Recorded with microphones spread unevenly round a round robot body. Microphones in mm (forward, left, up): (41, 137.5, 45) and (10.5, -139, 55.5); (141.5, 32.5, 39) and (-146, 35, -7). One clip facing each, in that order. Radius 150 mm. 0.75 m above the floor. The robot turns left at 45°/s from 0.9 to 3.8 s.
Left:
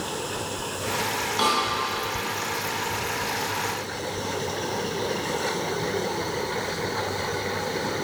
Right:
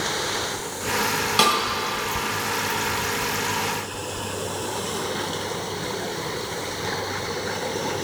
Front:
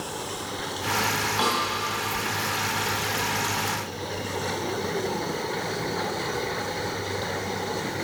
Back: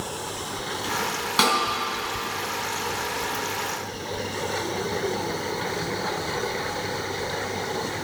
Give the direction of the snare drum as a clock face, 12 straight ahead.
4 o'clock.